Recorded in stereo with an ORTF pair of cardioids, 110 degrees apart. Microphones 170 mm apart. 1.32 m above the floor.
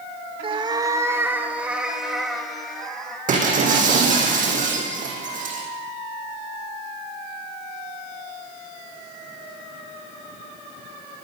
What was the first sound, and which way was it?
A cat meowing, 35° right.